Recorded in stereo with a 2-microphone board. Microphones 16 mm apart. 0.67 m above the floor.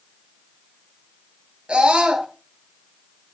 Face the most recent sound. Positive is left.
turn(degrees=-70)  # may be behind; listen again after turning